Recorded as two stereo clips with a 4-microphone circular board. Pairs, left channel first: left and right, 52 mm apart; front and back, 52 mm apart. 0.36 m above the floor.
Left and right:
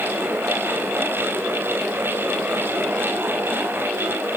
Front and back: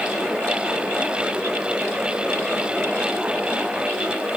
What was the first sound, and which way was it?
Only background noise.